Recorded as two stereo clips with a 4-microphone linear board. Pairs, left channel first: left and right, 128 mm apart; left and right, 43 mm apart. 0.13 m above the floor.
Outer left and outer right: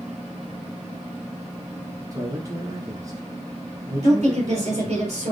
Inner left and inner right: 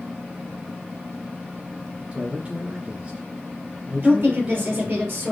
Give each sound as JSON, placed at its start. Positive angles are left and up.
{"t": 2.1, "sound": "a man speaking", "side_deg": -30, "distance_m": 1.9}
{"t": 4.0, "sound": "a woman speaking", "side_deg": -55, "distance_m": 2.5}